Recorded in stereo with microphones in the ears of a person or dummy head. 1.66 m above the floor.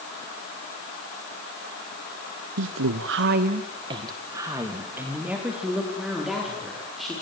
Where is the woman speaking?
65° right (ahead or behind), 1.3 m; by 7.1 s 5° right (ahead or behind), 6.5 m.